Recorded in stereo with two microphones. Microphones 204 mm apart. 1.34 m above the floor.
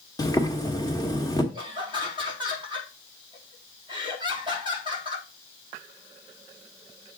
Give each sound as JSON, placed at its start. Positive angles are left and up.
{"t": 0.2, "sound": "boiling", "side_deg": 15, "distance_m": 1.6}
{"t": 1.5, "sound": "laughter", "side_deg": -25, "distance_m": 4.0}